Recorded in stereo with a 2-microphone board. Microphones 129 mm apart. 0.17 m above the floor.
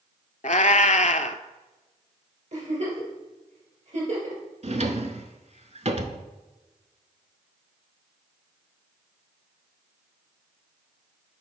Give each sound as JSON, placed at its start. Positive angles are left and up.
{"t": 0.4, "sound": "a cat meowing", "side_deg": 65, "distance_m": 0.5}
{"t": 2.5, "sound": "a giggle", "side_deg": -60, "distance_m": 3.0}
{"t": 4.6, "sound": "a drawer", "side_deg": -55, "distance_m": 0.7}